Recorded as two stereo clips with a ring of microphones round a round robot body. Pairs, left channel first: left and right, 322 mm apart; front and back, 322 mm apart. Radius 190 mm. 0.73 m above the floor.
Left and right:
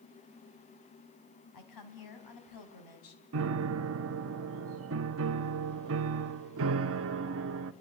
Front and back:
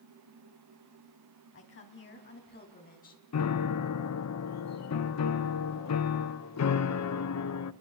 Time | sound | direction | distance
1.5 | a woman speaking | 55° left | 5 m
3.3 | a piano | 40° right | 0.9 m